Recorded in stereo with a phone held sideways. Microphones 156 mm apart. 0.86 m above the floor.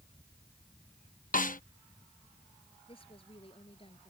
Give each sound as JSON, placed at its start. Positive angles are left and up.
{"t": 1.3, "sound": "a snare drum", "side_deg": 60}
{"t": 2.9, "sound": "a woman speaking", "side_deg": 35}